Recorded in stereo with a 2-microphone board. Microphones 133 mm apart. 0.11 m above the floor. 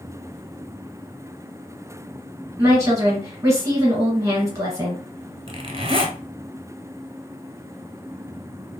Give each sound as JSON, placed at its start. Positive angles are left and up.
{"t": 2.6, "sound": "a woman speaking", "side_deg": -20, "distance_m": 1.6}
{"t": 5.5, "sound": "a zipper", "side_deg": -40, "distance_m": 0.8}